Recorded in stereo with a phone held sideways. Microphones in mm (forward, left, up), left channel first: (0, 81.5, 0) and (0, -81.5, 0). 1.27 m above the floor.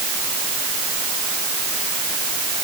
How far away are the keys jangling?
No keys jangling in this recording.